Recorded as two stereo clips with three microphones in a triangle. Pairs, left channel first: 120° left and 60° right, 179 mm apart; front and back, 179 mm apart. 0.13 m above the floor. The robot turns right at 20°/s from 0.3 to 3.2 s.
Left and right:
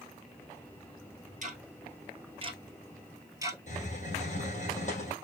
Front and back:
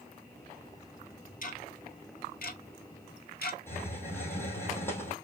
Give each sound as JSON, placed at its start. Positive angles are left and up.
{"t": 1.4, "sound": "ticking", "azimuth_deg": -25, "distance_m": 0.9}
{"t": 3.7, "sound": "a hiss", "azimuth_deg": 75, "distance_m": 2.5}